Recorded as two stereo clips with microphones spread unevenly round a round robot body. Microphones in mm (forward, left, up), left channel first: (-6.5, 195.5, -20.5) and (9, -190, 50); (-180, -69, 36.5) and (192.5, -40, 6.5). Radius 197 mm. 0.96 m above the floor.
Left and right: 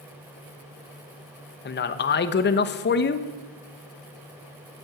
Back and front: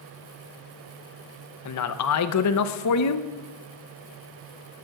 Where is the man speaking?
140° left, 0.8 m.